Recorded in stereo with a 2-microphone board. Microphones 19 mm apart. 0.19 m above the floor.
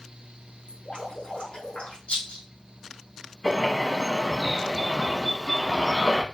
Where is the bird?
5° left (ahead or behind), 1.0 m.